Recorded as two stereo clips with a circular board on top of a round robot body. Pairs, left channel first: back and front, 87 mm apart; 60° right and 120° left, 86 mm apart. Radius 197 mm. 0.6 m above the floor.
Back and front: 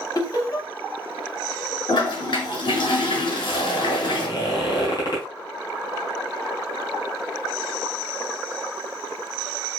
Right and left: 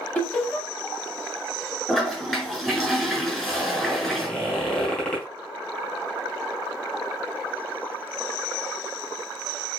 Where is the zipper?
135° right, 4 m.